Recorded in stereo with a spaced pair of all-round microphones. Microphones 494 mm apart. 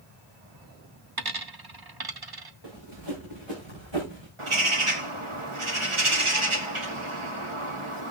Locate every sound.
1.2 s a dropped coin: 50° right (ahead or behind), 1.0 m
2.6 s running footsteps: 55° right (ahead or behind), 7 m; by 4.3 s 60° right (ahead or behind), 6 m
4.4 s a bird: 75° right (ahead or behind), 1.7 m